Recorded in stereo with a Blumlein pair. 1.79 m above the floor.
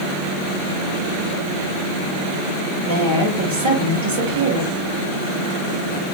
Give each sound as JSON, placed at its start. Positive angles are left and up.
{"t": 2.8, "sound": "a woman speaking", "azimuth_deg": -60, "distance_m": 1.8}